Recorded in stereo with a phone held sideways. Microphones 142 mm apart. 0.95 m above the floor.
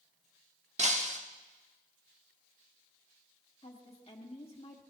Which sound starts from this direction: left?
A woman speaking, at 3.6 s.